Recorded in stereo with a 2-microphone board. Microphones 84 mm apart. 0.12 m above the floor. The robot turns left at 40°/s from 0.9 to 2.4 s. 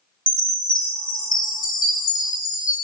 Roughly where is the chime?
Left.